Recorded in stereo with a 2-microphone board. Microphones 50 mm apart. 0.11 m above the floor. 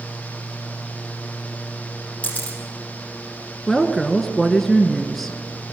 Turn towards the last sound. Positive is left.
turn(degrees=5)  # may be behind; listen again after turning